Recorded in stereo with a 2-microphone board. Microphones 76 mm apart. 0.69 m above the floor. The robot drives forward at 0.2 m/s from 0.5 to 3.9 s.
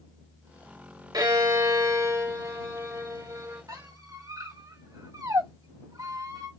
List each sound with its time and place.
1.1 s a violin: 60° right (ahead or behind), 1.8 m; by 3.6 s 50° right (ahead or behind), 2 m
3.7 s a squeak: 60° right (ahead or behind), 1.8 m; by 6.5 s 55° right (ahead or behind), 1.9 m